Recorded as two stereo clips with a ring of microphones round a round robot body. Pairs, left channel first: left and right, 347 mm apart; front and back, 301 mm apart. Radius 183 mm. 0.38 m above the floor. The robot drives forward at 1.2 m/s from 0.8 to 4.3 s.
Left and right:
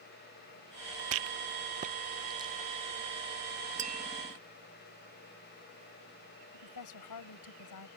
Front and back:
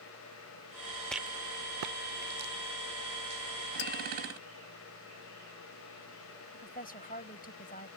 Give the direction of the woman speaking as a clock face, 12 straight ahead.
10 o'clock.